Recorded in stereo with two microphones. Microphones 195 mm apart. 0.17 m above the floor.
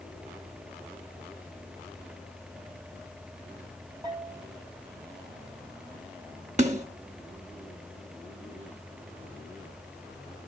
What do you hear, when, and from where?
4.0 s a bell: 20° right (ahead or behind), 8 m
6.6 s a snare drum: 40° right (ahead or behind), 2.0 m